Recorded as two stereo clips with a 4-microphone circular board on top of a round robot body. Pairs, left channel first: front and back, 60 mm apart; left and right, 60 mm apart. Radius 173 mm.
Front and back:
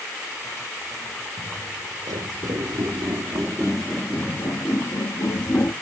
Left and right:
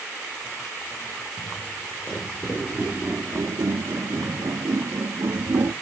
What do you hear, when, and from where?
1.4 s footsteps: 160° left, 1.7 m; by 5.7 s 30° right, 1.8 m